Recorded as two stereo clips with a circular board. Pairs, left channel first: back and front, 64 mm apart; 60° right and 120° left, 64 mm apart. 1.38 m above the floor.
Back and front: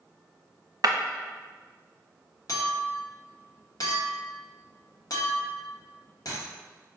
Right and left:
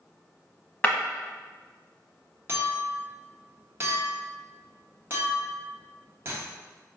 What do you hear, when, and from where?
0.8 s breaking glass: straight ahead, 0.9 m
2.5 s a clink: 170° left, 1.0 m